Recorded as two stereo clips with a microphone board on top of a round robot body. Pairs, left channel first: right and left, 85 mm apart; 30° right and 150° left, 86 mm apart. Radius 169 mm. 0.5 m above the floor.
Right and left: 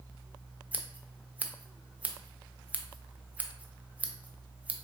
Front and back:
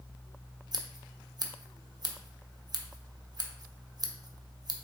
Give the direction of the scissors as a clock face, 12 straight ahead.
7 o'clock.